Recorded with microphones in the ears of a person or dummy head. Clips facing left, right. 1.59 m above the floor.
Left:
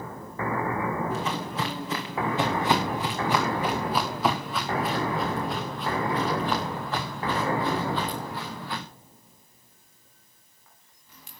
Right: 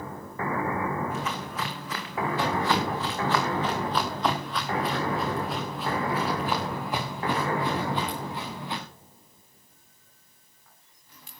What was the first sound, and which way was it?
Footsteps, 30° left (ahead or behind).